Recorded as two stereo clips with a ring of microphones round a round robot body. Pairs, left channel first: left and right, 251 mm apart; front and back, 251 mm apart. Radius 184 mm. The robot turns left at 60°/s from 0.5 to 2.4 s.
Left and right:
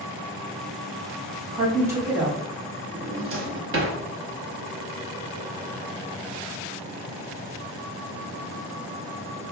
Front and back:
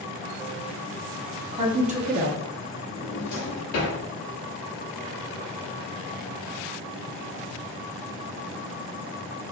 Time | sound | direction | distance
1.5 | a woman speaking | 140° right | 0.8 m
2.9 | a drawer | 45° right | 0.9 m